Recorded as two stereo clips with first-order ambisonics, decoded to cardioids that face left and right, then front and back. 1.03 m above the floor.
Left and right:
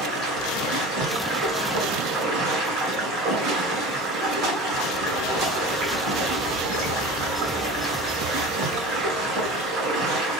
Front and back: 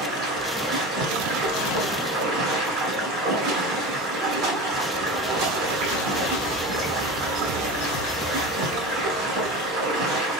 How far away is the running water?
About 6 m.